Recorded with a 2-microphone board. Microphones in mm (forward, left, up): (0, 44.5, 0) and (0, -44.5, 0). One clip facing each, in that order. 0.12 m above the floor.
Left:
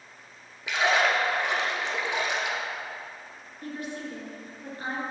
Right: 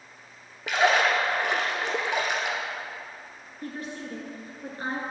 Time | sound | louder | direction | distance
0.7 | a splash | right 2 dB | 60° right (ahead or behind) | 0.9 m
3.6 | a woman speaking | left 1 dB | 40° right (ahead or behind) | 1.7 m